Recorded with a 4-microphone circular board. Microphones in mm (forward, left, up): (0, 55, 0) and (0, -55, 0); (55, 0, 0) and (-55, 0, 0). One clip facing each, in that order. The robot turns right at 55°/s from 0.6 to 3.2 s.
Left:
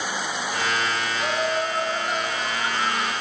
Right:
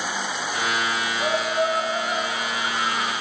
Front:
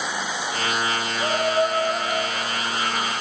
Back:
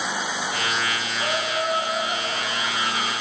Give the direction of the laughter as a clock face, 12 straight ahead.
2 o'clock.